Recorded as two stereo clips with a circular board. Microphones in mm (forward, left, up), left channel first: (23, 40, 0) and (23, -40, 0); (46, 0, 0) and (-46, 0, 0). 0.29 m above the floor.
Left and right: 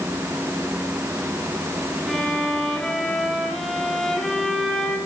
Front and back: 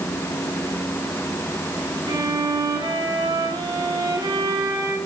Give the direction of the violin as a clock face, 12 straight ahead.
6 o'clock.